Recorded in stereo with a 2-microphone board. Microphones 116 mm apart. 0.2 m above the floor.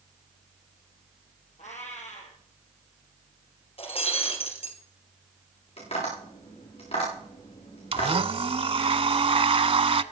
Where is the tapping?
65° left (ahead or behind), 7.5 m.